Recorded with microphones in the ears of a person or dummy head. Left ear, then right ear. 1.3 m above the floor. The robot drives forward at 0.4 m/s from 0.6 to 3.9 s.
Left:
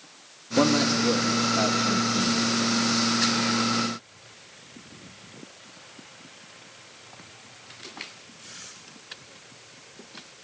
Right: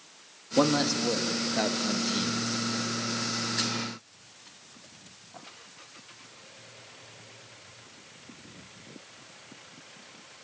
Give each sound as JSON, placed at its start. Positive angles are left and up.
{"t": 0.6, "sound": "a man speaking", "side_deg": -15, "distance_m": 1.8}